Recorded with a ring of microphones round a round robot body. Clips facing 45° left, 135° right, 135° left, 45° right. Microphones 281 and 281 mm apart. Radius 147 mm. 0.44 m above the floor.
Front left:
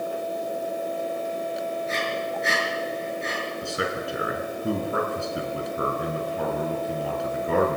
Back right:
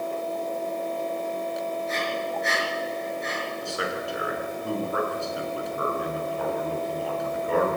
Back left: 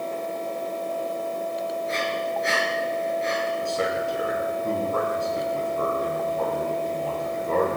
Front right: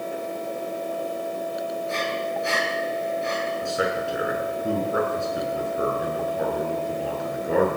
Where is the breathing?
65° left, 7.5 m.